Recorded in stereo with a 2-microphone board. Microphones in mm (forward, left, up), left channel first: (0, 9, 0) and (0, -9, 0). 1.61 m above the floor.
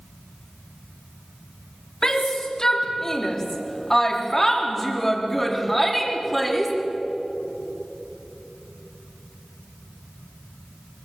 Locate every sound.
2.0 s a shout: 35° left (ahead or behind), 4.5 m; by 6.7 s centre (ahead or behind), 4.5 m